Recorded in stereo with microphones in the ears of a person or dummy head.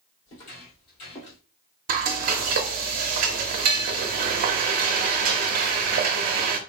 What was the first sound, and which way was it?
Footsteps, 40° left (ahead or behind).